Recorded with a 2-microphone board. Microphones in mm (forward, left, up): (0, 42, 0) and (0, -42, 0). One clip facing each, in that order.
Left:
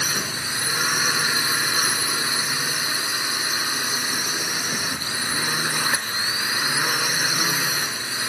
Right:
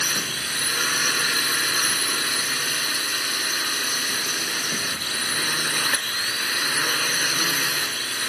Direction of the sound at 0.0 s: 15° left (ahead or behind).